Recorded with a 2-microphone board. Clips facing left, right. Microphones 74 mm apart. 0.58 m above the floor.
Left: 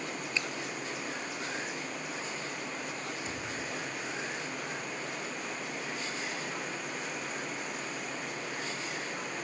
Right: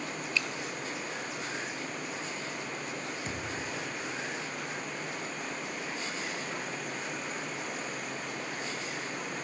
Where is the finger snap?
30° left (ahead or behind), 1.3 m.